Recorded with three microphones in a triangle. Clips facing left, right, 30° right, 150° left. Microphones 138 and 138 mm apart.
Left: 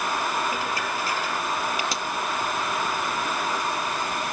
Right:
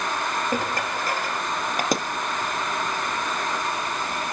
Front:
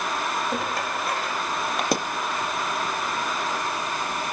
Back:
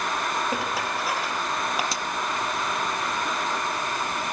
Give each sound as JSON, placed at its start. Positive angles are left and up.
{"t": 0.5, "sound": "dishes clattering", "azimuth_deg": -125, "distance_m": 3.0}
{"t": 1.9, "sound": "a pop", "azimuth_deg": -55, "distance_m": 1.1}